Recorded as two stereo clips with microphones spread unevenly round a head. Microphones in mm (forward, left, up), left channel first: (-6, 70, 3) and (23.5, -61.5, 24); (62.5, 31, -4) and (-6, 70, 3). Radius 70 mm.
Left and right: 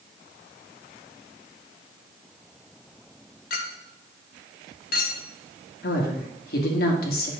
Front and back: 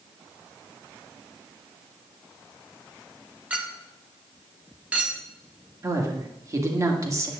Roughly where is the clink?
Left.